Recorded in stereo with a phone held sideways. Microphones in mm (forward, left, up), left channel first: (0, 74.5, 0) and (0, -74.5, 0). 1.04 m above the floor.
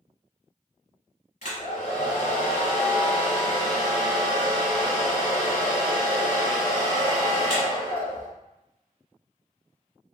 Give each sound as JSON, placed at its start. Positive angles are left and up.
{"t": 1.4, "sound": "a hair dryer", "side_deg": 50, "distance_m": 1.6}